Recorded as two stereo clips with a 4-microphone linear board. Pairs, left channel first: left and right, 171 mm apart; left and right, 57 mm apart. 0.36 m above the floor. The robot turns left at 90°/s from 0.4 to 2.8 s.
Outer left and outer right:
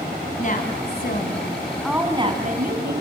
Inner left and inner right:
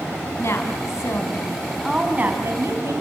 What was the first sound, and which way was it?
A woman speaking, 130° left.